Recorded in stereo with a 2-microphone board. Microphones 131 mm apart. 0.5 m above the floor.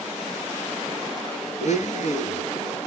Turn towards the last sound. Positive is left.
turn(degrees=65)  # may be behind; listen again after turning